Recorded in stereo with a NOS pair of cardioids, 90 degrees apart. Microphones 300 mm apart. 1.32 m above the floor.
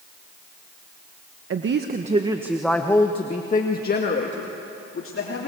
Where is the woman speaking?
45° right, 1.4 m; by 5.5 s 45° left, 3.5 m.